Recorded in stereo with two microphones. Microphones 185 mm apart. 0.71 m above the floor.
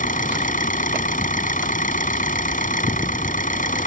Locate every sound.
0.0 s an engine running: 45° left (ahead or behind)